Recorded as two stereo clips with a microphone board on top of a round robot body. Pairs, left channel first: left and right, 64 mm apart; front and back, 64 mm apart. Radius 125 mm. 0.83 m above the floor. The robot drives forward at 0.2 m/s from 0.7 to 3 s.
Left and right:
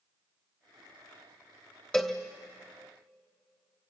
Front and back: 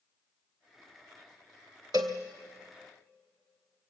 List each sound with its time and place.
1.9 s a cowbell: 170° left, 0.6 m; by 2.2 s 175° left, 0.6 m